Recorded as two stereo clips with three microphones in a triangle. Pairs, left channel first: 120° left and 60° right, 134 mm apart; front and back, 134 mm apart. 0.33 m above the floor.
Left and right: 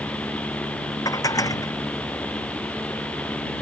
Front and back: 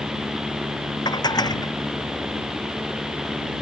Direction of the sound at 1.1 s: 55° left.